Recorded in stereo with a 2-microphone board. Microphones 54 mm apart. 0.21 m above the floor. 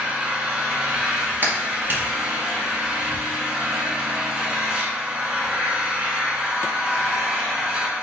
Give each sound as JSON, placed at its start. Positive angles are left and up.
{"t": 0.0, "sound": "an engine running", "side_deg": -25, "distance_m": 1.0}
{"t": 1.4, "sound": "a clap", "side_deg": -40, "distance_m": 1.0}